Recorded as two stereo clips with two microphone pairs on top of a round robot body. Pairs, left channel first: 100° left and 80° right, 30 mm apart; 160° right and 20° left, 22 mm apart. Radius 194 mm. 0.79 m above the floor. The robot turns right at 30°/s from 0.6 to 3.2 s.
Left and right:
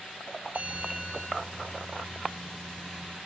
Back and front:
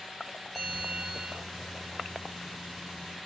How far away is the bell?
About 2.5 m.